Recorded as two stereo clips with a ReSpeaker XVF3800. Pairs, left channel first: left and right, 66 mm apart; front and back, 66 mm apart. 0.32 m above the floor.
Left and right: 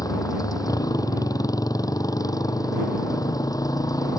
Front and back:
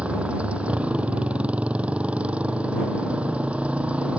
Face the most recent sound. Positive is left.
turn(degrees=110)